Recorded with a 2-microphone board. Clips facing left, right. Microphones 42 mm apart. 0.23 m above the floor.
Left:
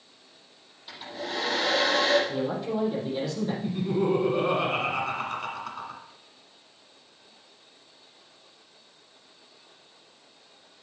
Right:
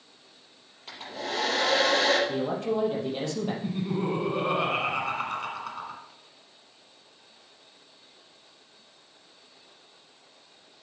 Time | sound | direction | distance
0.9 | a hair dryer | 70° right (ahead or behind) | 6 m
2.3 | a man speaking | 65° right (ahead or behind) | 5.5 m
3.6 | laughter | 15° right (ahead or behind) | 1.5 m